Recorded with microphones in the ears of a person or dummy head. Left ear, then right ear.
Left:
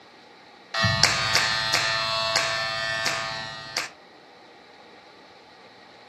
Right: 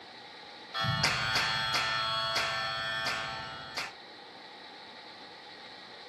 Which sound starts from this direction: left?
A clap, at 0.7 s.